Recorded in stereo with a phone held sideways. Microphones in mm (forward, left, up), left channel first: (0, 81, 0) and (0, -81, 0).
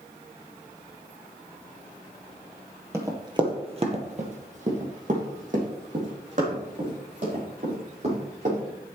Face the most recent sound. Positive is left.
turn(degrees=-50)  # may be behind; listen again after turning